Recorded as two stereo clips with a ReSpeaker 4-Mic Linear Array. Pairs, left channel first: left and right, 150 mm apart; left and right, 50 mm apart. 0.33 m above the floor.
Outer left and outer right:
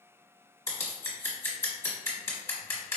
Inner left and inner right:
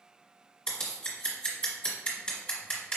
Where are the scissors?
20° left (ahead or behind), 1.3 m.